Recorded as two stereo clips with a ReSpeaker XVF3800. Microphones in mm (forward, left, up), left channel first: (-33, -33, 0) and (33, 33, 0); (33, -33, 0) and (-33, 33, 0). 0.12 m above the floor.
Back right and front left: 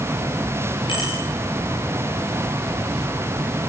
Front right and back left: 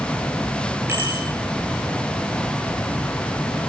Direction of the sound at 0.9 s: 160° right.